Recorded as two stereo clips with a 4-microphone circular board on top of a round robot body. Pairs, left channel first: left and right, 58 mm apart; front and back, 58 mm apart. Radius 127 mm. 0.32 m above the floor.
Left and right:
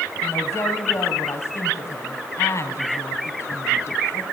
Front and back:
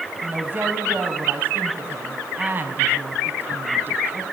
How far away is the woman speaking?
About 4 m.